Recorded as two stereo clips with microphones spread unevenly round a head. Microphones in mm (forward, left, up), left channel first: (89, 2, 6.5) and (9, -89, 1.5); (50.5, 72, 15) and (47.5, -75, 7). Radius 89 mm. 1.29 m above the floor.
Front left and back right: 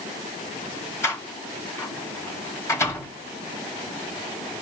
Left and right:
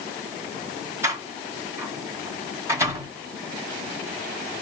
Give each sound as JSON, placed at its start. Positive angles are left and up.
{"t": 1.0, "sound": "a door slam", "azimuth_deg": -20, "distance_m": 7.5}